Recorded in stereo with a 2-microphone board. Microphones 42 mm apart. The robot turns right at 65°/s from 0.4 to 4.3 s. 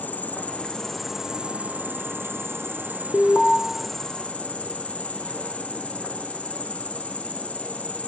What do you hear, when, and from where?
0.0 s an insect: 140° left, 1.7 m; by 8.1 s 35° left, 1.7 m
3.1 s an alarm: 25° left (ahead or behind), 1.3 m; by 3.6 s 15° left (ahead or behind), 1.3 m